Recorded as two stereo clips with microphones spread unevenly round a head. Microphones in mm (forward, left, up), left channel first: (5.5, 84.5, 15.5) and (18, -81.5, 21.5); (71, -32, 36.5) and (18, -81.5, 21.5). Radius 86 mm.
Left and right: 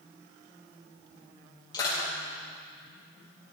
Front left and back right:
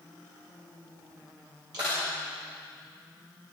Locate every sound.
1.7 s crushing: 160° left, 7.5 m